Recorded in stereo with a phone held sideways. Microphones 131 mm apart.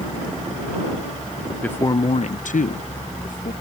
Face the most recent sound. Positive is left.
turn(degrees=80)